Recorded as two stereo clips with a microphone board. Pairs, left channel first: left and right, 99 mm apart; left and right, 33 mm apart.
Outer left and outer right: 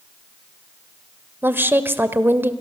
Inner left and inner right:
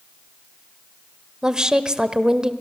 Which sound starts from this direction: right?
A woman speaking, at 1.4 s.